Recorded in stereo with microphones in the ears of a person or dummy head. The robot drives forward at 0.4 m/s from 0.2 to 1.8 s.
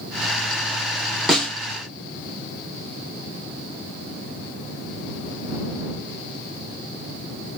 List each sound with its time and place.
1.3 s a snare drum: centre (ahead or behind), 0.8 m